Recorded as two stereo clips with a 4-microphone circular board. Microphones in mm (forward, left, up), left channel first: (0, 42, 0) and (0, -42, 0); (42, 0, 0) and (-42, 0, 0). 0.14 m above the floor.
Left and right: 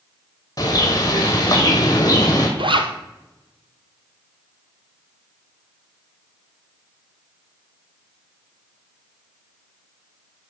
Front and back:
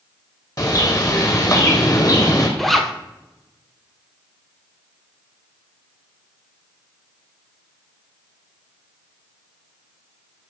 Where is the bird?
45° left, 2 m.